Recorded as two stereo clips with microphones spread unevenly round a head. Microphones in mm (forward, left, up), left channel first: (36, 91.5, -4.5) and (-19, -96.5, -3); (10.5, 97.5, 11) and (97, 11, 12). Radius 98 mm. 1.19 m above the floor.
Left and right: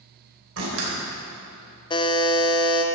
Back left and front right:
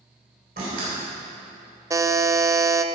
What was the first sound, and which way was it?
A door slam, 85° right.